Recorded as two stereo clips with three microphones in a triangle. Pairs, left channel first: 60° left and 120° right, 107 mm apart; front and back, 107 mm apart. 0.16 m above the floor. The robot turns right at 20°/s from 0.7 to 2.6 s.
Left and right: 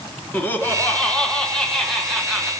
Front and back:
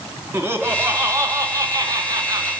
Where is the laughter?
125° left, 1.8 m; by 2.5 s 160° left, 1.8 m.